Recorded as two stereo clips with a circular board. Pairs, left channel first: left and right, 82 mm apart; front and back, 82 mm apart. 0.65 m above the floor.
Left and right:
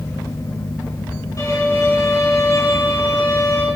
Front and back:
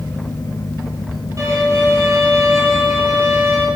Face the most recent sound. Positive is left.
turn(degrees=135)